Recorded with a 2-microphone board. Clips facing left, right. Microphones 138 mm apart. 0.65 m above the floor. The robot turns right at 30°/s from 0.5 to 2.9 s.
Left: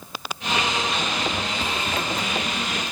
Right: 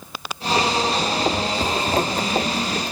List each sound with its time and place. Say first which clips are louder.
1.6 s a zipper: right 6 dB; 40° right (ahead or behind), 1.1 m; by 2.9 s 55° right (ahead or behind), 1.1 m